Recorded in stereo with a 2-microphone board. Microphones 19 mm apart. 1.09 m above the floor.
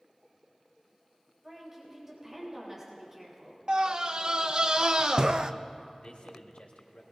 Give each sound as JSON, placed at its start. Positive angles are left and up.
{"t": 1.4, "sound": "a woman speaking", "side_deg": -10, "distance_m": 3.5}
{"t": 3.7, "sound": "a scream", "side_deg": -35, "distance_m": 0.6}
{"t": 6.0, "sound": "a man speaking", "side_deg": 90, "distance_m": 2.0}